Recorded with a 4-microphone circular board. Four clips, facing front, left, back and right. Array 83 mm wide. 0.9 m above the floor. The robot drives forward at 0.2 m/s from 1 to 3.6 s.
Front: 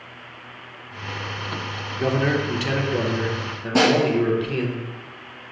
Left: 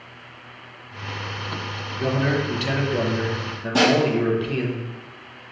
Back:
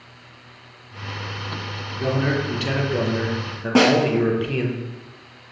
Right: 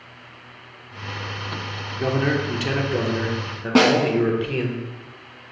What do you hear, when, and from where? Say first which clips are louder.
2.0 s a man speaking: right 1 dB, front 1 dB; 30° right, 0.6 m; by 4.8 s 150° right, 0.5 m
3.8 s a snare drum: right 2 dB, back 2 dB; 130° right, 1.1 m